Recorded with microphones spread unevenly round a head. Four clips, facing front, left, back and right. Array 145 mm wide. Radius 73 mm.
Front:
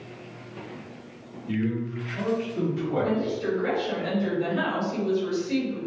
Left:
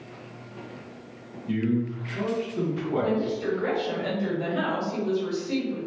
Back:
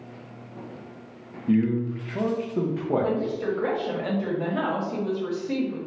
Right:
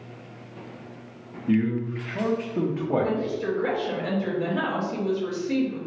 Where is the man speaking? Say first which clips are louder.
Right 2 dB, back 5 dB; 145° right, 0.9 m.